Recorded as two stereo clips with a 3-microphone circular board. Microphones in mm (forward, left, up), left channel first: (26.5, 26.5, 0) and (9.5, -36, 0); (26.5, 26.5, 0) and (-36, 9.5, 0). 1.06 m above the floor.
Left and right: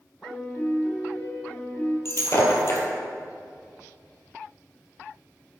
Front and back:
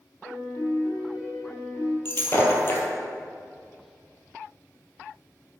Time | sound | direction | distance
0.2 | a piano | 10° left | 2.5 m
2.0 | breaking glass | 55° left | 1.5 m